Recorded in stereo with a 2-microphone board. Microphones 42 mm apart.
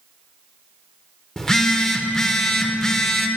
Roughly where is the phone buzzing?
Centre.